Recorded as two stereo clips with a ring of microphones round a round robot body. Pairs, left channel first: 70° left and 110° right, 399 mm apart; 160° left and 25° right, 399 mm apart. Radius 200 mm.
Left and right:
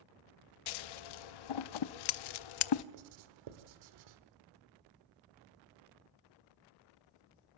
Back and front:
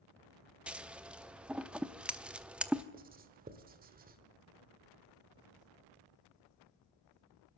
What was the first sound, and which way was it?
Scissors, 65° left.